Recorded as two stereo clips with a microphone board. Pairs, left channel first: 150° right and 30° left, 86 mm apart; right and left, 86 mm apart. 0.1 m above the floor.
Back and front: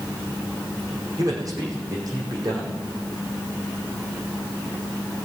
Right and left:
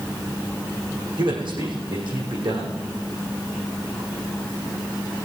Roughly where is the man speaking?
Left.